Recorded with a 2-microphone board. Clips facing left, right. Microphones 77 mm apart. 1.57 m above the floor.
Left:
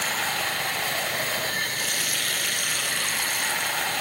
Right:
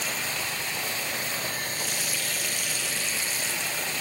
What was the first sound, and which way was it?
Running water, 55° left (ahead or behind).